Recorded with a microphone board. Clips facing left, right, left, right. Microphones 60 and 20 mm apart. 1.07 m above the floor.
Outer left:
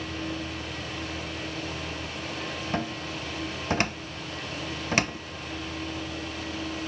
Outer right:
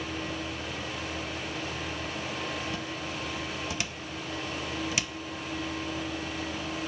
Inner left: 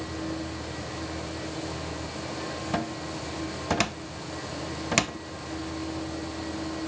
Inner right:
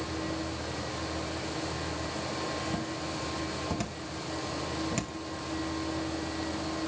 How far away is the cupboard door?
About 0.9 m.